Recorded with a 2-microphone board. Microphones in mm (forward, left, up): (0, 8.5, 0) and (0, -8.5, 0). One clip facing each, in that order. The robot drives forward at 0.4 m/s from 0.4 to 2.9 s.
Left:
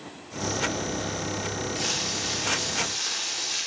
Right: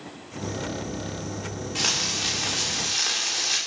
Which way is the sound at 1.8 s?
40° right (ahead or behind).